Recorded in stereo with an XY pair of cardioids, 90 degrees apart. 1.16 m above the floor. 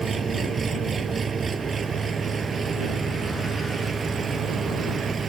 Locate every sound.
0.0 s an engine running: 40° right